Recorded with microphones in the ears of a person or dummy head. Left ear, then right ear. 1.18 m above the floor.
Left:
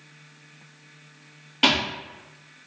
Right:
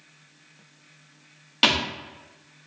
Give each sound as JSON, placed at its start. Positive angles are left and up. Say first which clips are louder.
{"t": 1.6, "sound": "a thud", "louder": "even", "side_deg": -30, "distance_m": 0.8}